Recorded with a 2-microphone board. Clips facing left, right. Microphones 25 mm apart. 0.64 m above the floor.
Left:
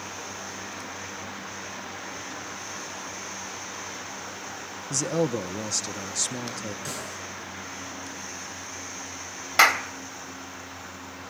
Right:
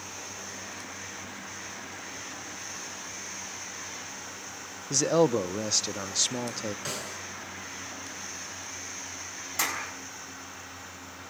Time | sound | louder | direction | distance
4.9 | a man speaking | right 3 dB | 35° right (ahead or behind) | 0.7 m
6.8 | a snare drum | left 1 dB | 20° right (ahead or behind) | 8 m
9.6 | a clap | left 12 dB | 65° left (ahead or behind) | 1.7 m